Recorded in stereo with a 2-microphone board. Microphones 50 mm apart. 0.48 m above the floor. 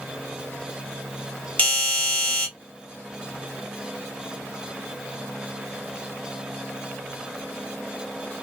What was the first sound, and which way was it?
A doorbell, 25° left (ahead or behind).